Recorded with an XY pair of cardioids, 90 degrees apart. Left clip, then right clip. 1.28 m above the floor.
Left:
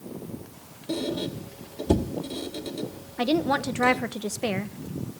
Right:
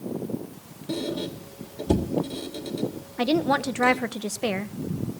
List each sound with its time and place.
0.9 s a squeak: 5° left, 2.5 m
3.2 s a woman speaking: 10° right, 1.0 m